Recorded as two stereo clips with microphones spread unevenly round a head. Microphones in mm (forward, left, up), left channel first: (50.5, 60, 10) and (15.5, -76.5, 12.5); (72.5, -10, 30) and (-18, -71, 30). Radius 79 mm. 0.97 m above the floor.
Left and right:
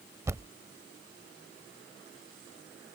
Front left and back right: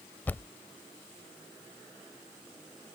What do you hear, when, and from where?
0.3 s a thud: 35° right